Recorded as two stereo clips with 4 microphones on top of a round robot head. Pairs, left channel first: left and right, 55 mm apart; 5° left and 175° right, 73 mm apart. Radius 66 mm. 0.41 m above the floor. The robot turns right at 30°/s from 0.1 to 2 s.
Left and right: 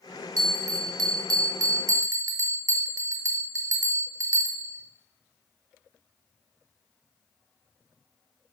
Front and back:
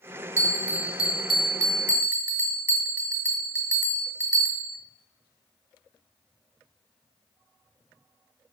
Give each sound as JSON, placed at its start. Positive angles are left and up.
{"t": 0.4, "sound": "a bell", "azimuth_deg": -110, "distance_m": 1.4}